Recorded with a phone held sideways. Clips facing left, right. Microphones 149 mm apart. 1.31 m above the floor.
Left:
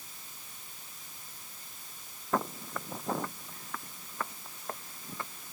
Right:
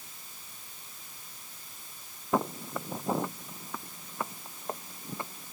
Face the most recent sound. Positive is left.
turn(degrees=-20)  # may be behind; listen again after turning